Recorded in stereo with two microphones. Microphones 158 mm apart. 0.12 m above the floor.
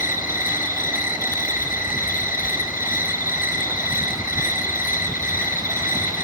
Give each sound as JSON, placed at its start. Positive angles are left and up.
{"t": 0.0, "sound": "an insect", "side_deg": 60, "distance_m": 4.0}